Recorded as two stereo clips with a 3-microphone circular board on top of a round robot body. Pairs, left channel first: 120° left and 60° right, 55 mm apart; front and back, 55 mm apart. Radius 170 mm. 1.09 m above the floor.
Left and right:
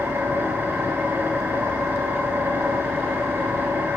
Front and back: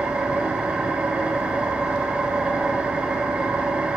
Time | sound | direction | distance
0.0 | an engine running | 110° right | 4 m